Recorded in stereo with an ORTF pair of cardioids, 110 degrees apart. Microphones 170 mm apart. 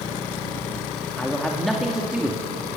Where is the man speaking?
5° left, 2.5 m; by 2.4 s 10° right, 3 m.